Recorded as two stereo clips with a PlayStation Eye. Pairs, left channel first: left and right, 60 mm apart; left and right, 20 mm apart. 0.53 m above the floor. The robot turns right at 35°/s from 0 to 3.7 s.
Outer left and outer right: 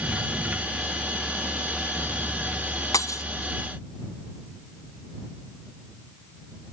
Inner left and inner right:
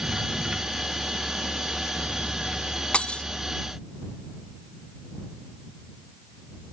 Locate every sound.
2.9 s breaking glass: 85° left; by 3.2 s 75° left (ahead or behind)